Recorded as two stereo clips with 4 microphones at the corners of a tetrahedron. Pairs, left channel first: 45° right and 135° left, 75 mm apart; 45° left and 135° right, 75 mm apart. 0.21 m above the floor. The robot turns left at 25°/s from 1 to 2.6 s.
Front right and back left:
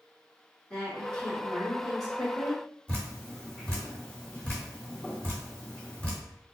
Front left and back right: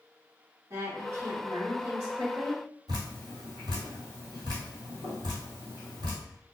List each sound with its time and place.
0.7 s a woman speaking: 105° right, 1.2 m; by 2.6 s 145° right, 1.2 m
2.9 s dripping: 115° right, 1.4 m